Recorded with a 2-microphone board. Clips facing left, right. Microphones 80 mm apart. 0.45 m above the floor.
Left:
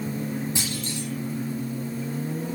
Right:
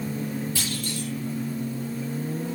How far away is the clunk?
About 9 m.